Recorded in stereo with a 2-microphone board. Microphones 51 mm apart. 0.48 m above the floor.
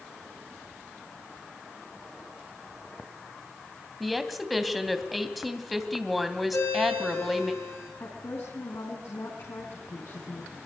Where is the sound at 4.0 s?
Centre (ahead or behind), 2.5 m.